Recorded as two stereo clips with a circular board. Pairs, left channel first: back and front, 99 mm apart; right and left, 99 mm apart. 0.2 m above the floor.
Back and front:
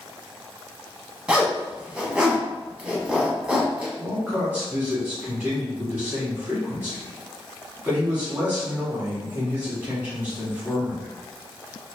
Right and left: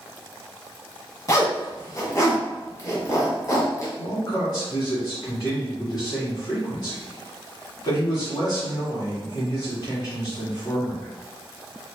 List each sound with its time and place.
1.3 s a zipper: 75° right, 1.2 m
4.0 s a man speaking: 70° right, 1.9 m